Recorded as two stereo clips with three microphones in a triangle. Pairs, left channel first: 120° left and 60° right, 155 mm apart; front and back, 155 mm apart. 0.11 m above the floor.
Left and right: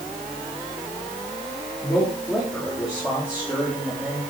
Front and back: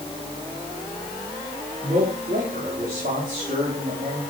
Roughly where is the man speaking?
Behind right.